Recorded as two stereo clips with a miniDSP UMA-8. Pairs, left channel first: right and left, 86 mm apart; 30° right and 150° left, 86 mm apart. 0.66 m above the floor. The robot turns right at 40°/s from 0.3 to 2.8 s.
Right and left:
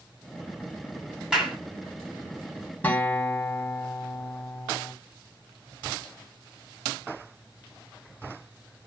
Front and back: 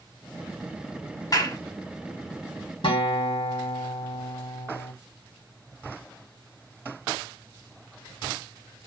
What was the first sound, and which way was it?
A clap, 10° left.